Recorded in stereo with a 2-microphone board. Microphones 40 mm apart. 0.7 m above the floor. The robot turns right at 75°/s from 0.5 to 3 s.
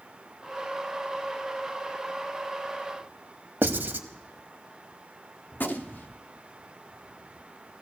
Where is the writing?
60° right (ahead or behind), 0.8 m.